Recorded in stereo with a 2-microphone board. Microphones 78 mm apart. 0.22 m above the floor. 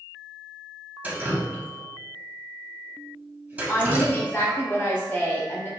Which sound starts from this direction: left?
A woman speaking, at 3.7 s.